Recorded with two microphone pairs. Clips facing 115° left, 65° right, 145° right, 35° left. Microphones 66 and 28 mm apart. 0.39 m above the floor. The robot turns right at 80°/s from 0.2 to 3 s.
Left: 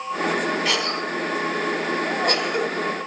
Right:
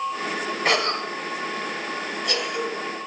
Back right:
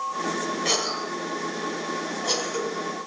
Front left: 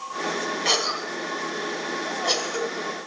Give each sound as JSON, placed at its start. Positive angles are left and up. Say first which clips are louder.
{"t": 0.7, "sound": "a cough", "louder": "right 1 dB, front left 5 dB", "azimuth_deg": -40, "distance_m": 1.5}